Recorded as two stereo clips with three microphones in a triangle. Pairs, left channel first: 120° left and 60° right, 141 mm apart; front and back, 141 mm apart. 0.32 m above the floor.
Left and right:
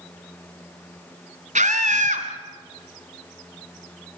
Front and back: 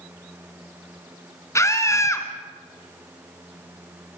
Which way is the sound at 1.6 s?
65° right.